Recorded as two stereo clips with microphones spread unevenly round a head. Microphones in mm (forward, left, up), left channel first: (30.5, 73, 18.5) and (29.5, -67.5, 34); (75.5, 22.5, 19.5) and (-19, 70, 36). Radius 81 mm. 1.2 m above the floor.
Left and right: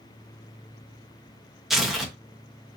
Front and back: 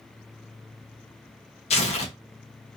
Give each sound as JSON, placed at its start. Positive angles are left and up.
{"t": 1.7, "sound": "tearing paper", "azimuth_deg": -5, "distance_m": 0.8}